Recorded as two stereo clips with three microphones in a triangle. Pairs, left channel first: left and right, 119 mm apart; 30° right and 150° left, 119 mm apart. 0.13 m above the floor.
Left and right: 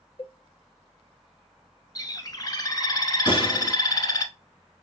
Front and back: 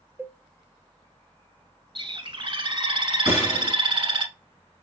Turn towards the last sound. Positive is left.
turn(degrees=80)